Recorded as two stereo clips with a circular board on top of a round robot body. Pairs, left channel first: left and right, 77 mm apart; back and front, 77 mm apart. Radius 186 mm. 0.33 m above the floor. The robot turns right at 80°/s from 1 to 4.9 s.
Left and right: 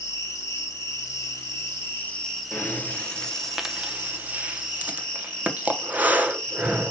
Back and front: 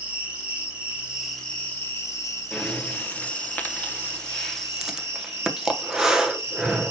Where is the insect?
65° left, 2 m; by 6.9 s 20° left, 2 m.